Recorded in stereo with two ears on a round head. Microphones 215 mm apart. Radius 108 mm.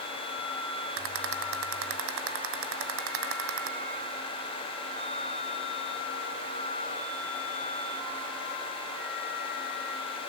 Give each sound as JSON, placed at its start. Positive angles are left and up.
{"t": 1.0, "sound": "a rattle", "side_deg": -60, "distance_m": 1.8}